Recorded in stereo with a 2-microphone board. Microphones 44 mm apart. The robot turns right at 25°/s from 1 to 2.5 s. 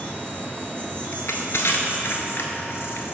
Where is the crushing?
85° left, 0.7 m; by 3.1 s 55° left (ahead or behind), 0.7 m.